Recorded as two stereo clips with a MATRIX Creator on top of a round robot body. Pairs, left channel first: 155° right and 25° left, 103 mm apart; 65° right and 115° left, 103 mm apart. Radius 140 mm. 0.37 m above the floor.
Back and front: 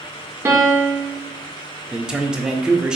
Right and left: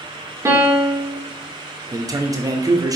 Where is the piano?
80° left, 1.3 m.